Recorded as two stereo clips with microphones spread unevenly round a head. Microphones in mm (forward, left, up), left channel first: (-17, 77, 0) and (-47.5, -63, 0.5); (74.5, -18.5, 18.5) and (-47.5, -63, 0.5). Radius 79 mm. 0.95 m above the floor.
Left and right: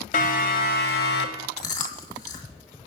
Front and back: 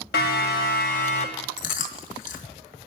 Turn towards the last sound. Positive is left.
turn(degrees=10)